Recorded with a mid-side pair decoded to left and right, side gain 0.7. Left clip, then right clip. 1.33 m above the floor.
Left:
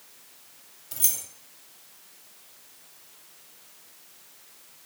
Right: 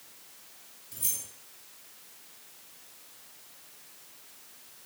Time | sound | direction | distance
0.9 | keys jangling | 65° left | 1.2 m